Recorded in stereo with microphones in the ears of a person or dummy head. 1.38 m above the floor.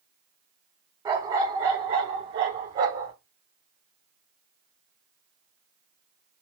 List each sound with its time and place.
1.1 s a dog barking: 25° right (ahead or behind), 1.3 m; by 3.1 s 15° right (ahead or behind), 1.2 m